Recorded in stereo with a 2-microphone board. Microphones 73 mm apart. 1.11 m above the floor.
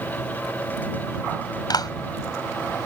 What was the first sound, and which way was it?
A clap, 65° left (ahead or behind).